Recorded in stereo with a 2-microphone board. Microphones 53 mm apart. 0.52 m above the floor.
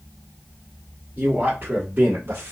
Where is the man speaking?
35° right (ahead or behind), 1.5 m; by 2.5 s 45° right (ahead or behind), 1.6 m.